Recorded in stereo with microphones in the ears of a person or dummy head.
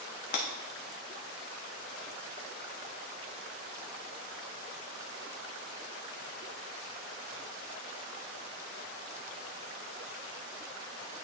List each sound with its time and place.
0.3 s breaking glass: 55° left (ahead or behind), 1.2 m